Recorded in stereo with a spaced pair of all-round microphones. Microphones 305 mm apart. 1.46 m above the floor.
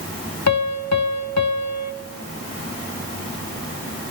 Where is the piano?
75° left (ahead or behind), 0.8 m.